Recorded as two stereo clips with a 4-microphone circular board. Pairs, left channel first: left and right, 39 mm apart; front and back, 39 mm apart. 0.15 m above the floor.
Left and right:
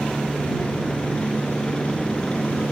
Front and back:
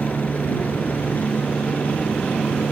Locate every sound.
0.0 s a helicopter: 25° left; by 2.7 s 35° left